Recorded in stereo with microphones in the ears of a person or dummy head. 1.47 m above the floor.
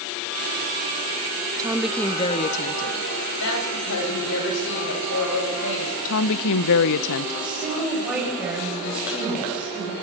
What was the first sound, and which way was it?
A woman speaking, 20° right (ahead or behind).